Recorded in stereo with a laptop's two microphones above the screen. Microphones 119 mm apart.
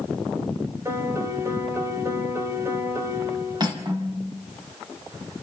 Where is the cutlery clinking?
35° right (ahead or behind), 4.5 m.